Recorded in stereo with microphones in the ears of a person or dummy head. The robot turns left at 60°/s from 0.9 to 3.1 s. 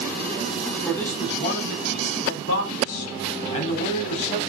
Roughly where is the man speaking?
Behind.